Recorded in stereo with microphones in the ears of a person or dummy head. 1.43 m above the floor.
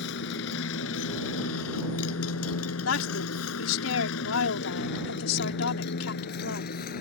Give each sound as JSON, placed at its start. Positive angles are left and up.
{"t": 0.0, "sound": "a motorcycle", "side_deg": 65}
{"t": 2.9, "sound": "a woman speaking", "side_deg": 85}